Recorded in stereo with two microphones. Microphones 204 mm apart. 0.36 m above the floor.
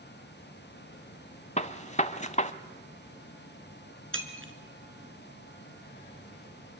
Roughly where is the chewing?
No chewing in this recording.